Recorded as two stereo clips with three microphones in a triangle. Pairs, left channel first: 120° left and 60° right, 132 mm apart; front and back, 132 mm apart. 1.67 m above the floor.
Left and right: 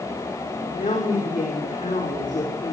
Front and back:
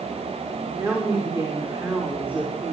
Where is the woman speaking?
115° left, 5.5 m; by 2.7 s 100° left, 6 m.